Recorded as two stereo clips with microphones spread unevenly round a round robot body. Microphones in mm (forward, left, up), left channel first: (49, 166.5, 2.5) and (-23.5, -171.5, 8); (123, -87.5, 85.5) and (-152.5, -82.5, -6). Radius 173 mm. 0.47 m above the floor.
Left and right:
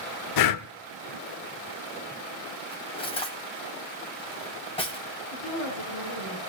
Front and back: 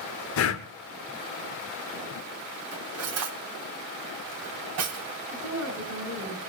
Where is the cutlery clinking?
155° left, 1.7 m.